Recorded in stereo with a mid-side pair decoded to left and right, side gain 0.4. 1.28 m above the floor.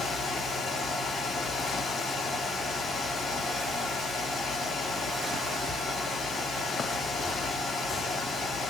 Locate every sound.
0.0 s a fan: 50° left, 2 m